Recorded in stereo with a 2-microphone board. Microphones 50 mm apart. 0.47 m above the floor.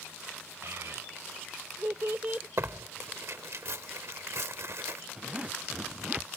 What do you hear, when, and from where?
0.6 s a child speaking: 65° right (ahead or behind); by 2.5 s 25° right (ahead or behind)
2.6 s tearing paper: 60° right (ahead or behind)
5.2 s a zipper: 20° right (ahead or behind)